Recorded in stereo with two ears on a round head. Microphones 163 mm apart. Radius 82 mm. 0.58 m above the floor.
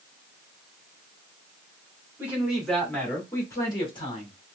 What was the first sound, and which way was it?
A man speaking, 10° right (ahead or behind).